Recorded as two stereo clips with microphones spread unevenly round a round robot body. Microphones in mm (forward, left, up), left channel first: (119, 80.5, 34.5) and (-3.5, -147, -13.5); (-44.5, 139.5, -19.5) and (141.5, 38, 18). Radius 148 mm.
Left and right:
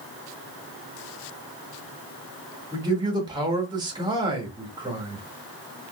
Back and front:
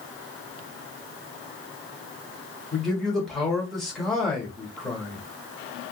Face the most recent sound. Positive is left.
turn(degrees=-145)